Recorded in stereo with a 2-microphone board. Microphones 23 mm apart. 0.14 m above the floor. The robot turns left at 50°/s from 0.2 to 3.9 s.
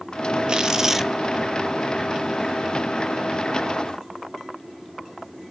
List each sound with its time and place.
0.5 s tearing paper: 135° right, 0.5 m; by 1.1 s 165° right, 0.5 m